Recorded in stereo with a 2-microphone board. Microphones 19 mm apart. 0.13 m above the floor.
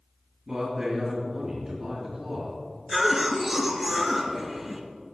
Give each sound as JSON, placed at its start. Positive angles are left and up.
{"t": 0.5, "sound": "a man speaking", "side_deg": -25, "distance_m": 2.5}
{"t": 2.9, "sound": "a cough", "side_deg": -5, "distance_m": 1.8}